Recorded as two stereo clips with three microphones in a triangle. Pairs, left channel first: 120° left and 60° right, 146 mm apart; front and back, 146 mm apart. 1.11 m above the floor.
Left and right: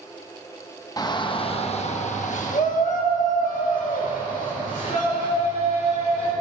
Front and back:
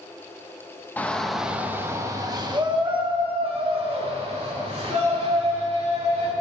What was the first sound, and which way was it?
A shout, 70° left.